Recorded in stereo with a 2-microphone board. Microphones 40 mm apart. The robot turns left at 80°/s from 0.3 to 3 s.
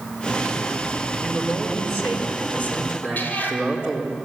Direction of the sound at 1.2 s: 10° right.